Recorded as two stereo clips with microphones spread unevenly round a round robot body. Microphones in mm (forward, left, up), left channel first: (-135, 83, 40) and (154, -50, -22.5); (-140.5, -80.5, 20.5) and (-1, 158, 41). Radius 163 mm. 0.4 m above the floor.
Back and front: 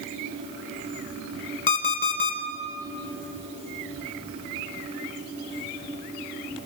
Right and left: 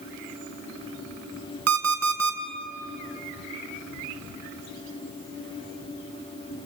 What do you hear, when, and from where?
1.7 s an alarm clock: 90° left, 3 m